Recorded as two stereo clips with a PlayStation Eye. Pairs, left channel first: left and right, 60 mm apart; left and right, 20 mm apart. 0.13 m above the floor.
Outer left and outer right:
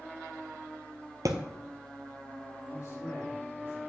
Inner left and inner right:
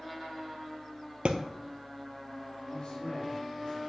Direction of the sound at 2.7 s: 55° left (ahead or behind).